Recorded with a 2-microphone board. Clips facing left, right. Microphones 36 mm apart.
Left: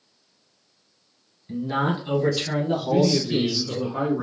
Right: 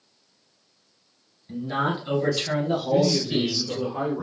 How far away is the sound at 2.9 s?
About 2 m.